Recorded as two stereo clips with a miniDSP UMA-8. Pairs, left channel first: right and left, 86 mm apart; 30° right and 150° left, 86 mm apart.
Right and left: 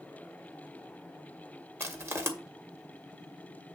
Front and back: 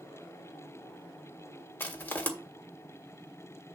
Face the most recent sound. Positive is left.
turn(degrees=35)